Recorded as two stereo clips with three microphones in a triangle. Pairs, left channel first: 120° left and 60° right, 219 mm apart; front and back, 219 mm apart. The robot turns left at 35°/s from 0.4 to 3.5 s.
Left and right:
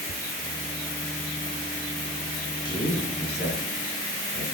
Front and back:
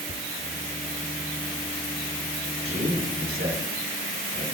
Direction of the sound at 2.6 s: Straight behind.